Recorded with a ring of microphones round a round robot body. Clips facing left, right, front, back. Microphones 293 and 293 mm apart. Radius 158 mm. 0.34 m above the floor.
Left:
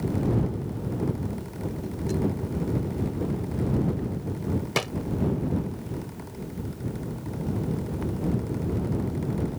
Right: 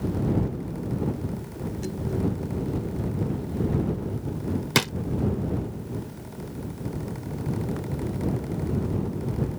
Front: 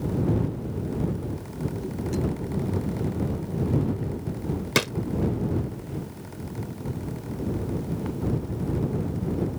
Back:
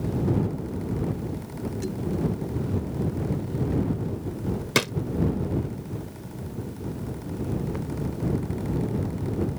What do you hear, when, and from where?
4.8 s a drawer: 90° right